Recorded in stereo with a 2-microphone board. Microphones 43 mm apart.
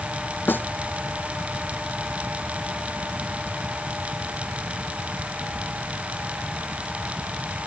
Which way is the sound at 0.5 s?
50° left (ahead or behind).